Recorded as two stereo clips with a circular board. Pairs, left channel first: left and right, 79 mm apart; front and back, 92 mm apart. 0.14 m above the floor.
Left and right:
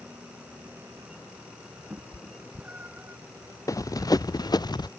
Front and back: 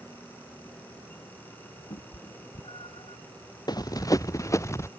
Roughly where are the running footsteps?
Ahead left.